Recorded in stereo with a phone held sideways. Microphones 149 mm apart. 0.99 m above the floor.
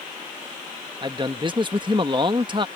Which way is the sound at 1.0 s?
30° right (ahead or behind).